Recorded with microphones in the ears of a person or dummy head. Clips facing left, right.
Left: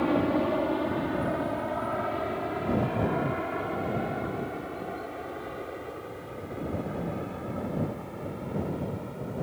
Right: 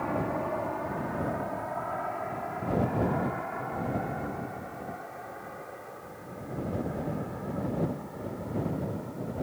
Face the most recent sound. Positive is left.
turn(degrees=50)  # may be behind; listen again after turning